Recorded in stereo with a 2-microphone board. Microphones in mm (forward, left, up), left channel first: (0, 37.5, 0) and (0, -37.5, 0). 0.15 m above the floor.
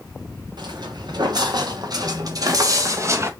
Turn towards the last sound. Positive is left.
turn(degrees=-35)  # may be behind; listen again after turning